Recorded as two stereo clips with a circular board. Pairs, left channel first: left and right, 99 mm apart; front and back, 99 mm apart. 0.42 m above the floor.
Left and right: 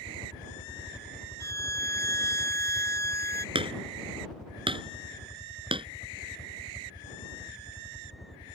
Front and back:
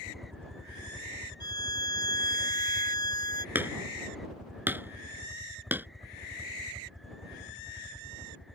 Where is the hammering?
110° right.